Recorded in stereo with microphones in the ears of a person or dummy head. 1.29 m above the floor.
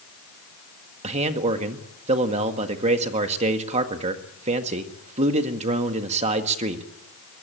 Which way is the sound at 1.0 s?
40° right (ahead or behind).